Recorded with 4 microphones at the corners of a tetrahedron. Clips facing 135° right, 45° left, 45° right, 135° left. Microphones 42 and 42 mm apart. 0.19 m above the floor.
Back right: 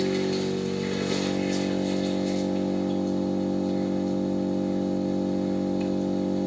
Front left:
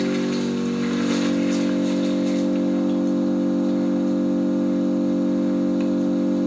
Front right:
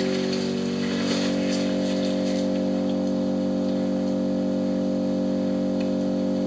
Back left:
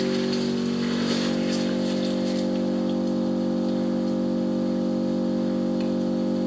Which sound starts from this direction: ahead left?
An engine running, at 0.0 s.